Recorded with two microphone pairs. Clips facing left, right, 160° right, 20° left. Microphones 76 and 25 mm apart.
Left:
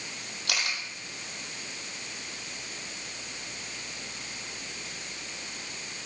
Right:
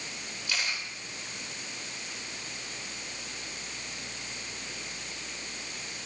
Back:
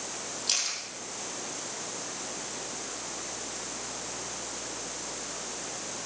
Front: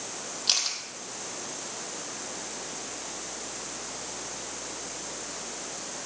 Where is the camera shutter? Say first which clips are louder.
Left 1 dB, front 4 dB; 85° left, 3 m.